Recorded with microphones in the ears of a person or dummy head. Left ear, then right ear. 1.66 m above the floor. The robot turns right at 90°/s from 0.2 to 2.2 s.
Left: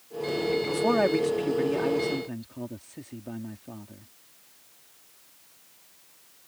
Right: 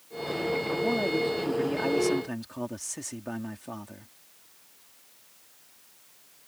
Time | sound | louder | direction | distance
0.7 | a man speaking | left 5 dB | 95° left | ?